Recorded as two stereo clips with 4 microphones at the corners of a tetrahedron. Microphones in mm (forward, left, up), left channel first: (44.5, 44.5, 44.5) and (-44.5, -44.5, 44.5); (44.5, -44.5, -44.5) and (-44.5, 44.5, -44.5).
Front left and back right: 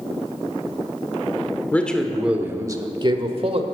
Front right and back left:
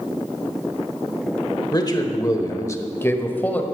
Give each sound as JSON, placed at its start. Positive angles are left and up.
{"t": 1.7, "sound": "a man speaking", "azimuth_deg": -20, "distance_m": 1.1}